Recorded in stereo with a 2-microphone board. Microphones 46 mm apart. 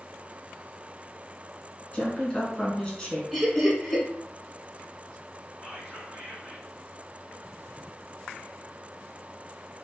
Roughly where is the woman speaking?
Left.